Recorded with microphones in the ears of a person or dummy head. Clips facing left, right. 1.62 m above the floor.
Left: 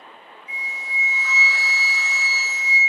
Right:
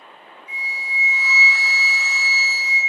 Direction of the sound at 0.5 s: 35° left (ahead or behind).